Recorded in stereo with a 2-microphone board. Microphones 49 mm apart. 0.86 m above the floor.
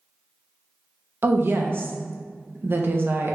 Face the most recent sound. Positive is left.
turn(degrees=-45)  # may be behind; listen again after turning